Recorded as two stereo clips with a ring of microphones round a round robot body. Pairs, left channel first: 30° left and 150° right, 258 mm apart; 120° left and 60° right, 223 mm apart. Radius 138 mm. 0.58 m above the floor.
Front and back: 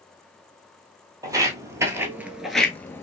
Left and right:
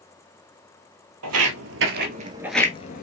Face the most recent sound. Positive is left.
turn(degrees=105)